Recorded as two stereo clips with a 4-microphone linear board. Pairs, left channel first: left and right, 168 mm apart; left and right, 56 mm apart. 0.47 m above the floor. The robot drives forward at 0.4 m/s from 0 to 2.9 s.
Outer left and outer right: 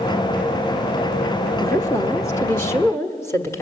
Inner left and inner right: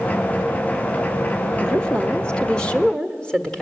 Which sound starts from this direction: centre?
A woman speaking, at 1.6 s.